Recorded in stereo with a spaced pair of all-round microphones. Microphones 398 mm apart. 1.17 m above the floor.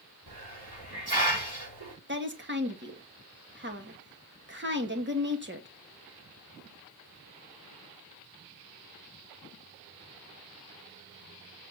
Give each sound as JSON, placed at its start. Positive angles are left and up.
{"t": 0.3, "sound": "a hiss", "side_deg": -70, "distance_m": 6.5}
{"t": 2.1, "sound": "a woman speaking", "side_deg": -30, "distance_m": 2.0}